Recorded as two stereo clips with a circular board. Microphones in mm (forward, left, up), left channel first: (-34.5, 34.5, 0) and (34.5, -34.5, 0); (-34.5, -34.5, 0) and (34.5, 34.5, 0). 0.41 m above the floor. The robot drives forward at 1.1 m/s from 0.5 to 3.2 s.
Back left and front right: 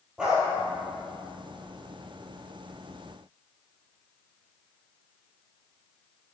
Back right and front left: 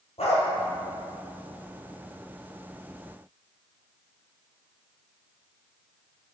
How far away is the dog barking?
About 3 m.